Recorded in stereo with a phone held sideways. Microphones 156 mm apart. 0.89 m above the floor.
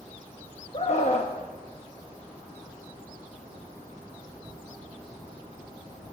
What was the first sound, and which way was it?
A scream, 45° left (ahead or behind).